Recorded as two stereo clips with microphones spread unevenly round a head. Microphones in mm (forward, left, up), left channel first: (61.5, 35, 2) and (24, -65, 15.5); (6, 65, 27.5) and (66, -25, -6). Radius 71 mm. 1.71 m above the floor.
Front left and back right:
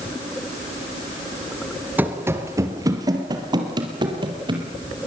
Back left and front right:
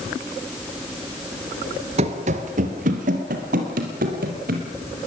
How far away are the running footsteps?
About 2.0 m.